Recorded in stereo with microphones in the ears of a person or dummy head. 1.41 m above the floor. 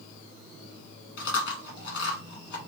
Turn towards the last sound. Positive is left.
turn(degrees=75)  # may be behind; listen again after turning